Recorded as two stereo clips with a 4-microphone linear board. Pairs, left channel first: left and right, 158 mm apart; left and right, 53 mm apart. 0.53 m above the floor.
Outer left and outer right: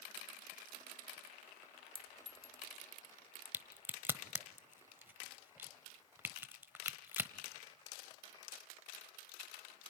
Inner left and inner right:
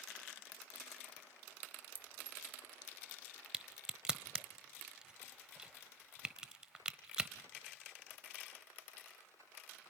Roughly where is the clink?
Right.